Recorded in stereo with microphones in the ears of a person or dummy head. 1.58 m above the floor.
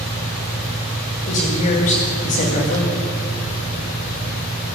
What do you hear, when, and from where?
0.0 s a fan: 70° right (ahead or behind), 1.9 m
1.3 s a woman speaking: 50° left (ahead or behind), 2 m